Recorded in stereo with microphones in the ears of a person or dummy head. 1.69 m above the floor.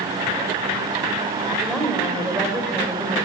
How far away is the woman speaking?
About 6 m.